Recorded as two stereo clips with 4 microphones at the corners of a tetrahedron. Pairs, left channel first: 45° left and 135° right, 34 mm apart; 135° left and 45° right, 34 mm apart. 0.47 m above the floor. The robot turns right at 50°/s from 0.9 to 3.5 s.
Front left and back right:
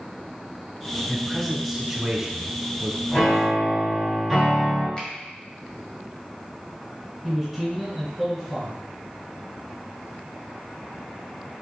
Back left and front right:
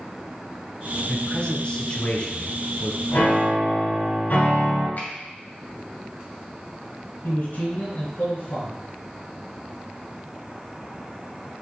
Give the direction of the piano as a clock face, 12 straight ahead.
9 o'clock.